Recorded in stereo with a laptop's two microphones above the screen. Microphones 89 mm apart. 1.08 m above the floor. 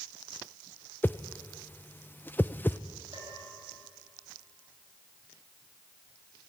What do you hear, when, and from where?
1.0 s a whoosh: 20° left (ahead or behind), 0.6 m
3.1 s a bell: 65° right (ahead or behind), 9 m